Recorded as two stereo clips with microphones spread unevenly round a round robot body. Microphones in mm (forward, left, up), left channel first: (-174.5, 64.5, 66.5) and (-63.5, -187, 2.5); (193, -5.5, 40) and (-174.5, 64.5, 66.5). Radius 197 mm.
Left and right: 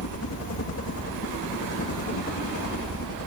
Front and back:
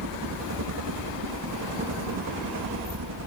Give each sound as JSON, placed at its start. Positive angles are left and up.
{"t": 0.0, "sound": "a helicopter", "azimuth_deg": 135}